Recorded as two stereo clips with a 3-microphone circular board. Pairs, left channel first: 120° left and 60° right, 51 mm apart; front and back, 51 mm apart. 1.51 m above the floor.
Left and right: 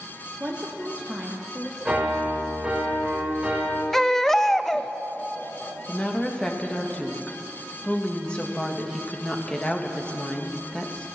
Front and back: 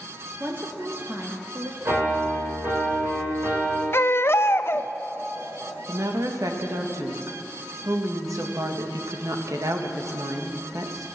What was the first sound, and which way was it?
A woman speaking, 130° right.